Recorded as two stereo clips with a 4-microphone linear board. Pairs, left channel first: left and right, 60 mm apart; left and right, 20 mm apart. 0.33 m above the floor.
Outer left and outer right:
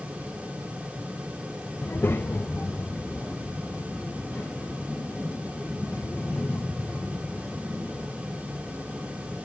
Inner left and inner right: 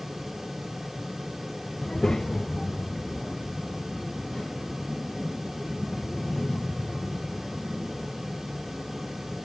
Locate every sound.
1.8 s a child speaking: 35° left (ahead or behind), 0.6 m; by 9.4 s 20° left (ahead or behind), 8 m